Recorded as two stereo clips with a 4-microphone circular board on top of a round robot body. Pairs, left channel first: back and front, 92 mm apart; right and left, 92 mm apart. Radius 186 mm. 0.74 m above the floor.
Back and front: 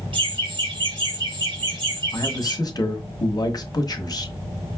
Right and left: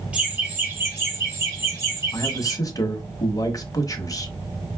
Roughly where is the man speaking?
Behind right.